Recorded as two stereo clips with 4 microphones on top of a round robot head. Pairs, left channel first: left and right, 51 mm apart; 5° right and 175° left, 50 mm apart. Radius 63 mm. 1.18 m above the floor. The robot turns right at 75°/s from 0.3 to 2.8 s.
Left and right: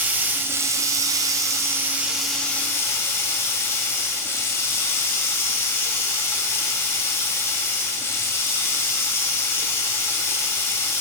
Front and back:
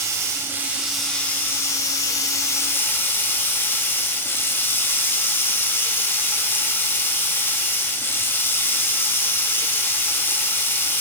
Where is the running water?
145° right, 1.4 m; by 11.0 s 40° left, 1.4 m.